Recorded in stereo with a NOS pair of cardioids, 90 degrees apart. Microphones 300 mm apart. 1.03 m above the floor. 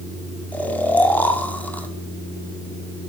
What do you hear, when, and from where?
0.5 s snoring: 5° left, 2 m